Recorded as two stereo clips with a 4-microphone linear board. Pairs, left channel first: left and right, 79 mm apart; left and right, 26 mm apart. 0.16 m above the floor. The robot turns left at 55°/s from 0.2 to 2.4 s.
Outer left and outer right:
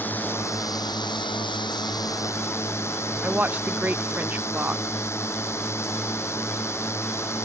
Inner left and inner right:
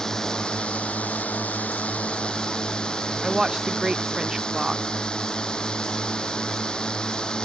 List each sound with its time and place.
0.0 s a drone: 155° left; by 7.5 s 35° left
3.2 s a woman speaking: 20° right (ahead or behind)